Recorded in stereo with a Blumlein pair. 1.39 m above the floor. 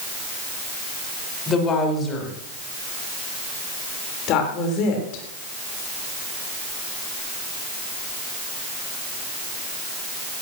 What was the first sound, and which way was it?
A woman speaking, 20° left.